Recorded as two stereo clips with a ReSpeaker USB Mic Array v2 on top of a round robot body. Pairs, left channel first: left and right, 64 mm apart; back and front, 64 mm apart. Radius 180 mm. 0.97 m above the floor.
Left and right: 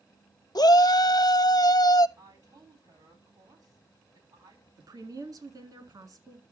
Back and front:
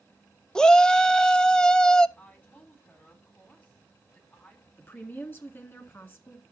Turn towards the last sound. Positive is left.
turn(degrees=-115)